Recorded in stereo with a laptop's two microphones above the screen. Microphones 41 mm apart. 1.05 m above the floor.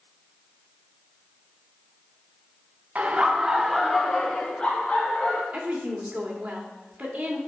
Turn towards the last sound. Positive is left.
turn(degrees=-35)  # may be behind; listen again after turning